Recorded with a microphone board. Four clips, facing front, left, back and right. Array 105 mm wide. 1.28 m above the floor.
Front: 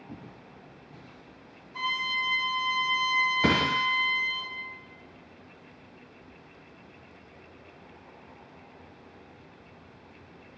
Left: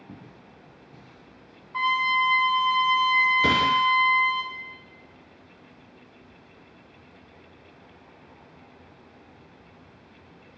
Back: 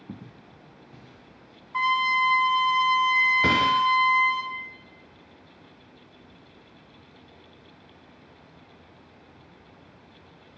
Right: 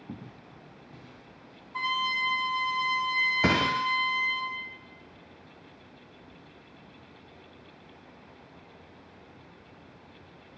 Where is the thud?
85° right, 1.0 m.